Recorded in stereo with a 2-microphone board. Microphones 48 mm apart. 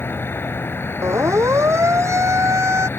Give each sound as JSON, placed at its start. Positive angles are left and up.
{"t": 0.0, "sound": "an insect", "side_deg": 55}
{"t": 1.0, "sound": "a siren", "side_deg": -80}